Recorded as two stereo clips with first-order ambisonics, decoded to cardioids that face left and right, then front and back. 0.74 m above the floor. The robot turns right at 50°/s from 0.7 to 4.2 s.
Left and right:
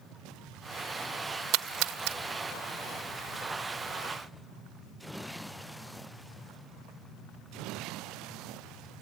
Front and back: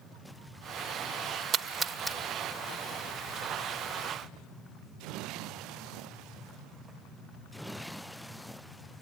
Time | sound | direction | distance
1.5 | a splash | 125° right | 0.9 m